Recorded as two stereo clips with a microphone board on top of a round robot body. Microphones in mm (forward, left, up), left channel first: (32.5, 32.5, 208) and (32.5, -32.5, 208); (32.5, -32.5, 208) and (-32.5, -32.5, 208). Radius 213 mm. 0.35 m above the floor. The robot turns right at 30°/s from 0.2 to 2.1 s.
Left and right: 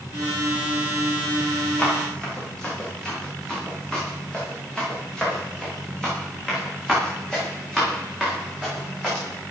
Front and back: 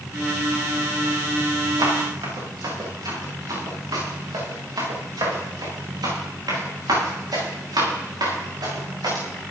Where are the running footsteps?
155° left, 7 m; by 9.2 s 175° left, 12.5 m.